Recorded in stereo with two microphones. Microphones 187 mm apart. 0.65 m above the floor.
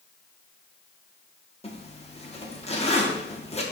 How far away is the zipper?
About 1.1 m.